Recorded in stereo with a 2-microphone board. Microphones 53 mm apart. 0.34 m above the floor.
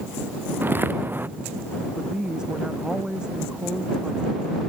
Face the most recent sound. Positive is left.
turn(degrees=-15)  # may be behind; listen again after turning